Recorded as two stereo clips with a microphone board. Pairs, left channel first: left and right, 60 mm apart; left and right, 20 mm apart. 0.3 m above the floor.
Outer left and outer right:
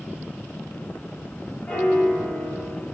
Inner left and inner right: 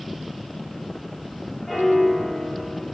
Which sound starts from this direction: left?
A piano, at 1.7 s.